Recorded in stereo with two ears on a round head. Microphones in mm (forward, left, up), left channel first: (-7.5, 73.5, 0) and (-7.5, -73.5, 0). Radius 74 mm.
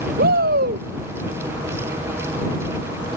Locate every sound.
0.2 s a shout: 60° right (ahead or behind)